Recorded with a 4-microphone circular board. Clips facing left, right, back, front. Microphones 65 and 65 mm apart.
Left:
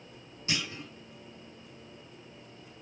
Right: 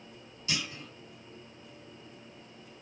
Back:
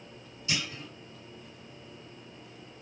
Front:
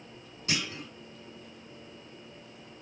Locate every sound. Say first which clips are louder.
0.5 s a clunk: left 1 dB, front 1 dB; 35° left, 1.8 m